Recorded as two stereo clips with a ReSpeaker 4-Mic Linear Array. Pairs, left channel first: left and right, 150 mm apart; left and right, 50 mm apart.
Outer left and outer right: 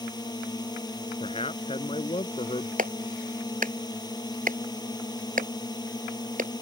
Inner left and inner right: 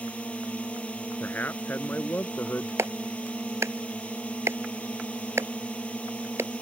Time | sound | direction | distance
0.0 | a drone | 25° left (ahead or behind) | ?
1.2 | a man speaking | 40° left (ahead or behind) | ?
2.8 | a clap | 60° right (ahead or behind) | ?